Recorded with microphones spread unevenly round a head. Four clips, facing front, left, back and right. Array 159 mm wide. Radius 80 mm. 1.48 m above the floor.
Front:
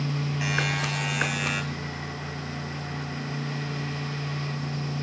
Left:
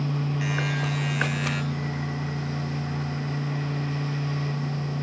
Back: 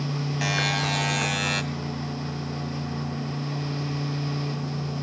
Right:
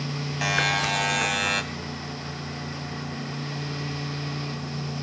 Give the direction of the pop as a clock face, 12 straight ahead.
No pop in this recording.